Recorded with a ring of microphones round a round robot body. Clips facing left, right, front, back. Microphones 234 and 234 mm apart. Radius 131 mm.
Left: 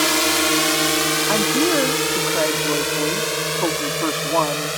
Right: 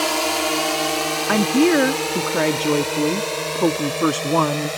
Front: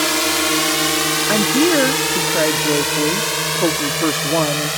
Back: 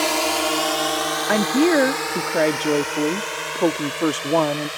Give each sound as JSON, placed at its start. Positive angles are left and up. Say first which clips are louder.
{"t": 0.0, "sound": "a drone", "louder": "left 2 dB, front 2 dB", "azimuth_deg": 50}
{"t": 1.3, "sound": "a woman speaking", "louder": "right 5 dB, front 1 dB", "azimuth_deg": -80}